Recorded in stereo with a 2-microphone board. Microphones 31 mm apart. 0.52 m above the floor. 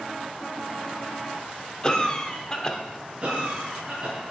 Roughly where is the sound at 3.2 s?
Right.